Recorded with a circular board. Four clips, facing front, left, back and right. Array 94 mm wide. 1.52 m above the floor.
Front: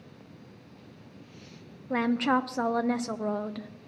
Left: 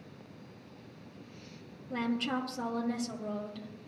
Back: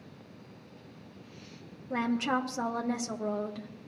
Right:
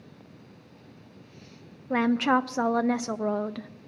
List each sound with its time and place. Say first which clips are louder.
1.9 s a woman speaking: right 10 dB, front 4 dB; 70° right, 0.7 m